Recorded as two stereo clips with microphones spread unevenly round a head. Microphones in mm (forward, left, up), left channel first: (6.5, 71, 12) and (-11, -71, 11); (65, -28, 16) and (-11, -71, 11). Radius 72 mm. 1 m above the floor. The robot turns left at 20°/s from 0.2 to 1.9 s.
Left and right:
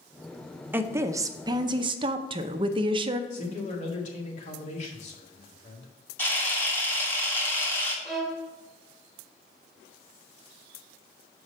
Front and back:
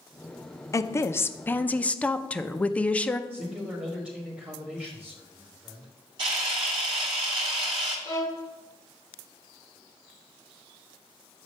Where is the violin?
5° right, 1.1 m.